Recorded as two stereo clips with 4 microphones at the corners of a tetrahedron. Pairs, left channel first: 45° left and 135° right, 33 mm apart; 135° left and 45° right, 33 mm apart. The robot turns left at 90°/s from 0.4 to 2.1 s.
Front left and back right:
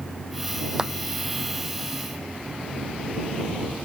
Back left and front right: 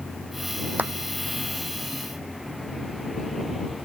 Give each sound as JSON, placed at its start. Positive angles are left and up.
{"t": 0.8, "sound": "a clap", "azimuth_deg": -65}